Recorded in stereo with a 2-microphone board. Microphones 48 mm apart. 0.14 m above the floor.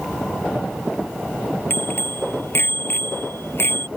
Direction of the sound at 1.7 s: 50° left (ahead or behind).